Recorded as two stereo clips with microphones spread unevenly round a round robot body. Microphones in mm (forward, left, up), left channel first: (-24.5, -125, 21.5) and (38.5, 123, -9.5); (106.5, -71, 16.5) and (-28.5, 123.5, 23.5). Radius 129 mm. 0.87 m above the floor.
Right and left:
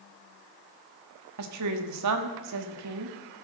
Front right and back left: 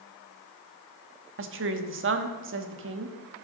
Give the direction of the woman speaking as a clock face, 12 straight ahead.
9 o'clock.